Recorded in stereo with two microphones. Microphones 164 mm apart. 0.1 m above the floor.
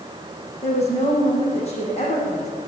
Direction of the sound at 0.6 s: 45° left (ahead or behind).